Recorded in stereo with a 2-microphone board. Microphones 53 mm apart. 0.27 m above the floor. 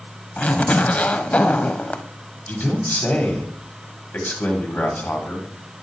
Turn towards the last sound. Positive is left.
turn(degrees=40)  # may be behind; listen again after turning